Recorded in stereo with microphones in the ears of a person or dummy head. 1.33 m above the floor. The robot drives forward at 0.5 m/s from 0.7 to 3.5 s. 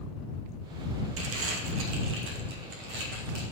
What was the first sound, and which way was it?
Crumpling, 70° right (ahead or behind).